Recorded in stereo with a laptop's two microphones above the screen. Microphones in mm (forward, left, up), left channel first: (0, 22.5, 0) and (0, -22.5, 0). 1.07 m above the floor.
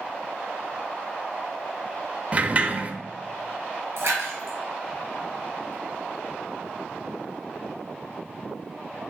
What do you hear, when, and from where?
2.3 s a sliding door: 30° right (ahead or behind), 0.9 m
4.0 s a splash: 60° right (ahead or behind), 4.5 m